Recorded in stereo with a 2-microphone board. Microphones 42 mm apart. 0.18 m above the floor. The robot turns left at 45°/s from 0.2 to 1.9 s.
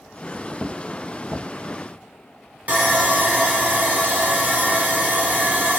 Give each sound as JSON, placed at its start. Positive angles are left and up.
{"t": 2.7, "sound": "sawing", "side_deg": -40, "distance_m": 0.8}